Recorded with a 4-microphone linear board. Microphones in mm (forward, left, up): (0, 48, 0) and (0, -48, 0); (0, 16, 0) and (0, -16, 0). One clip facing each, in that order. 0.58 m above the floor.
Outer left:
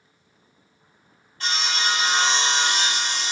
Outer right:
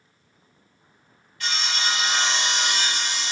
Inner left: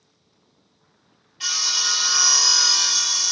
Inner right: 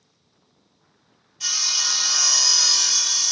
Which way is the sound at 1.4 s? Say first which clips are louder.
Outer left 2 dB, inner left 1 dB; 35° left (ahead or behind).